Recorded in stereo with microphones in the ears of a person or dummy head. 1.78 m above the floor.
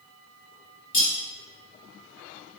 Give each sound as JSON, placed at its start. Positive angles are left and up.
{"t": 0.9, "sound": "cutlery clinking", "side_deg": 40, "distance_m": 1.6}